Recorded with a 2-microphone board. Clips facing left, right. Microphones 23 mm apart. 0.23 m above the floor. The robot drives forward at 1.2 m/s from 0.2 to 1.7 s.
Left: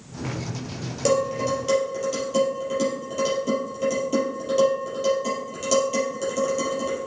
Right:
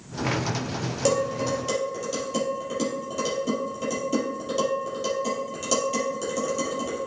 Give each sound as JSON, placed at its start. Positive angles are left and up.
{"t": 1.1, "sound": "dishes clattering", "side_deg": 5, "distance_m": 3.0}